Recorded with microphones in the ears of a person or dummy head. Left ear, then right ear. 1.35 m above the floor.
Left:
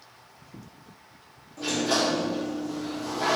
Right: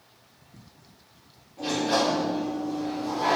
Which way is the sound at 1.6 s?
50° left (ahead or behind).